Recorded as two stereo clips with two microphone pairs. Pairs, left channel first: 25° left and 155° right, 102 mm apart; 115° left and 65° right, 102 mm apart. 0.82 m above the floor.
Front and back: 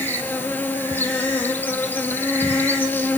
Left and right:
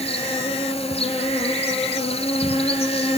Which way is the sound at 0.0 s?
95° left.